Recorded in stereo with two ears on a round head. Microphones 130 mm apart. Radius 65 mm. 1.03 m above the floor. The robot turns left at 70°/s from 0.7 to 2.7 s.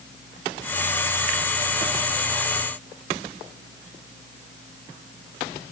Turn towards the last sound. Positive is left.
No sound to turn to.